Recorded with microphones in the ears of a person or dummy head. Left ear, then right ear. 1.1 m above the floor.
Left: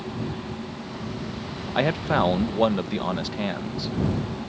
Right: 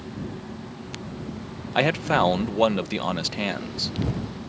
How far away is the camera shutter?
I don't hear a camera shutter.